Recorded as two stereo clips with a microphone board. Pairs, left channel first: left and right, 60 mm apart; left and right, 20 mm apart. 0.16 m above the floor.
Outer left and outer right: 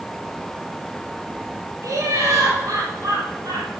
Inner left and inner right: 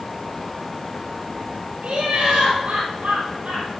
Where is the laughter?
70° right (ahead or behind), 3.5 m; by 3.8 s 75° right (ahead or behind), 4.5 m.